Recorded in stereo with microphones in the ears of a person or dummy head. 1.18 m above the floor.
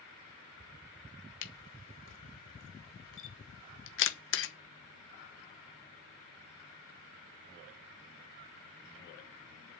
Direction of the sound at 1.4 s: 60° left (ahead or behind).